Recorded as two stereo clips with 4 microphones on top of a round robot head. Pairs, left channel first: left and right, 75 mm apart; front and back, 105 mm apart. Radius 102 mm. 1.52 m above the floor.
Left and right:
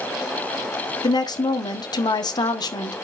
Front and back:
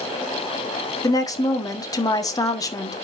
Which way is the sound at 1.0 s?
60° left.